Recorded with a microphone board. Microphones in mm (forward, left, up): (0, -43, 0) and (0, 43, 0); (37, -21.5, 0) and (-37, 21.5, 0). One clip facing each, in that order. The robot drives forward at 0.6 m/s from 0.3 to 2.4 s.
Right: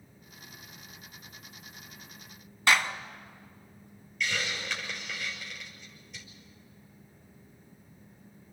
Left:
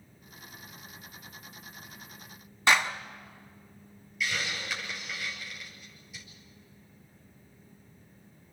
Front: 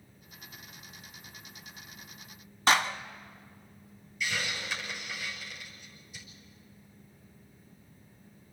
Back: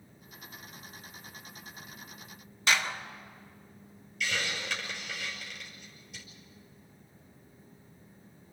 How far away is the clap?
About 1.1 m.